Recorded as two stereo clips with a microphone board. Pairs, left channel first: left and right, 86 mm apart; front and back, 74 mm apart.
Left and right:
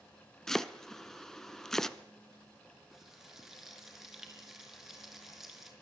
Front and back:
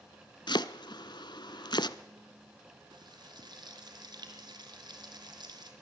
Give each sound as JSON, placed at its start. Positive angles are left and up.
{"t": 0.5, "sound": "chopping", "azimuth_deg": 5, "distance_m": 0.9}
{"t": 2.9, "sound": "frying", "azimuth_deg": -175, "distance_m": 5.0}